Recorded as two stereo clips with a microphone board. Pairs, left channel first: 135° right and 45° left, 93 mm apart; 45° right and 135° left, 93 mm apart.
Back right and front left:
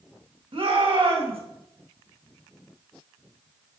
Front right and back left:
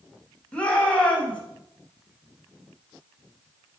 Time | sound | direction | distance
0.5 | a shout | 30° left | 4 m